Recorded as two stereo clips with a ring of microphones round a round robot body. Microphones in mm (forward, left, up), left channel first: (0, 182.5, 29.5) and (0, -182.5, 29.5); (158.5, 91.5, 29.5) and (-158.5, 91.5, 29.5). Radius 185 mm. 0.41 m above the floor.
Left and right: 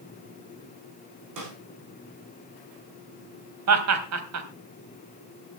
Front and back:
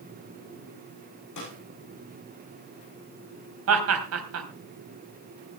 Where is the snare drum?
45° right, 7.5 m.